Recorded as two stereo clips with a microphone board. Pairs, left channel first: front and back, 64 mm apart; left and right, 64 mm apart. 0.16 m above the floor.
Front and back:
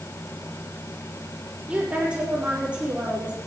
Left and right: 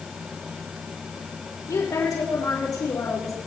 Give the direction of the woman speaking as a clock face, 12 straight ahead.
8 o'clock.